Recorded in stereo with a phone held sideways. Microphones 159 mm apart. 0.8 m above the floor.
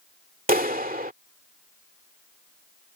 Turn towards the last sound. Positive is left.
turn(degrees=-65)  # may be behind; listen again after turning